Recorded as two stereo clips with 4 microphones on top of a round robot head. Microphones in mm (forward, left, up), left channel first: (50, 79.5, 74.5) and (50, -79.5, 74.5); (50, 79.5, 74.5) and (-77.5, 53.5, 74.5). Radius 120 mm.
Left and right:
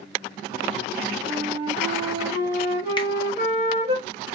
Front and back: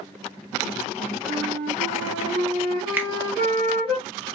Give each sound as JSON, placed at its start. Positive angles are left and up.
{"t": 1.2, "sound": "a flute", "azimuth_deg": -135, "distance_m": 1.6}
{"t": 3.0, "sound": "a finger snap", "azimuth_deg": 125, "distance_m": 1.0}